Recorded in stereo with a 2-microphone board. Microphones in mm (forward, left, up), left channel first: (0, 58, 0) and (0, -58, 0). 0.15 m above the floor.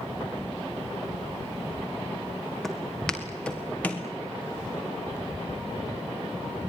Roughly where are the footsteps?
Centre.